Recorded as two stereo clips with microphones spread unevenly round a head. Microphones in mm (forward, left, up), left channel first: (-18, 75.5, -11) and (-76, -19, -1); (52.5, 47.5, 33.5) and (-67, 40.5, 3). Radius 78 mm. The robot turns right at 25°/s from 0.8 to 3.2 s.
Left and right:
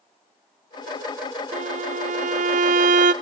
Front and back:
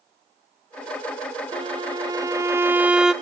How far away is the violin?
About 0.5 m.